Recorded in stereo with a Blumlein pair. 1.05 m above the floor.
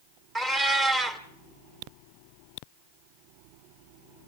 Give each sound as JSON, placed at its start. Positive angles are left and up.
{"t": 0.3, "sound": "a cat meowing", "azimuth_deg": -15, "distance_m": 1.7}